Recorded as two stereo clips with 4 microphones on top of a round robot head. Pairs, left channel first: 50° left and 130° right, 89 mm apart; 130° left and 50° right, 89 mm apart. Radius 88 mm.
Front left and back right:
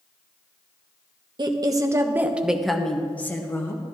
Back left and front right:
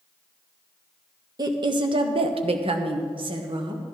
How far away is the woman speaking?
About 1.2 m.